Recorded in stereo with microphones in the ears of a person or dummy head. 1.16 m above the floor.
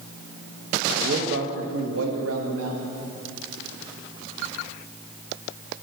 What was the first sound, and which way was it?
A man speaking, 40° right (ahead or behind).